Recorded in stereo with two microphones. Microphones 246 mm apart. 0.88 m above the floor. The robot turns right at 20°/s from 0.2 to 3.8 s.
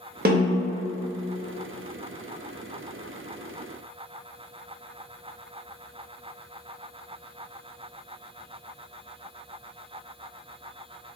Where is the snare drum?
40° right (ahead or behind), 0.6 m; by 0.7 s 30° right (ahead or behind), 0.6 m.